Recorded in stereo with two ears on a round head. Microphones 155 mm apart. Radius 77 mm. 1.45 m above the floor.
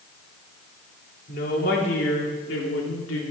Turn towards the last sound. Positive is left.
turn(degrees=85)